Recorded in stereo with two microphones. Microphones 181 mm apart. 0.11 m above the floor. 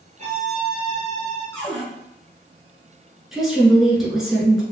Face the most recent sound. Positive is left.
turn(degrees=0)  # may be behind; listen again after turning